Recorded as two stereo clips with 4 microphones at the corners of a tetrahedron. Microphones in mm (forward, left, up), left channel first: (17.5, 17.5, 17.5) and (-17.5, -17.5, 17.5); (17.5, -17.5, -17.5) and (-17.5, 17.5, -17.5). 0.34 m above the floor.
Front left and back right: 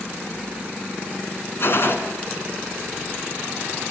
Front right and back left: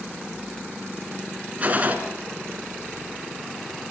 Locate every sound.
1.6 s a gunshot: 80° left, 2.5 m